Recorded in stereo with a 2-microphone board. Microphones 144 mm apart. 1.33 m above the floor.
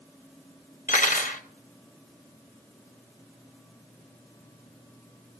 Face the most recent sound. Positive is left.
turn(degrees=65)  # may be behind; listen again after turning